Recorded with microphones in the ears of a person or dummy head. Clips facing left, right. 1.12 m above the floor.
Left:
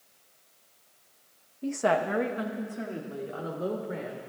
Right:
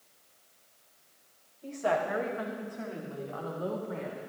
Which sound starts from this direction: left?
A woman speaking, at 1.6 s.